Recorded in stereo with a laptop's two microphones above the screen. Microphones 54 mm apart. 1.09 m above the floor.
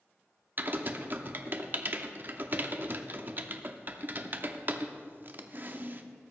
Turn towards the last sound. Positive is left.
turn(degrees=-40)  # may be behind; listen again after turning